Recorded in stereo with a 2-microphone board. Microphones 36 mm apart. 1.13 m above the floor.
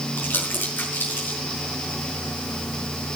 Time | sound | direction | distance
0.2 | crumpling | 85° left | 6 m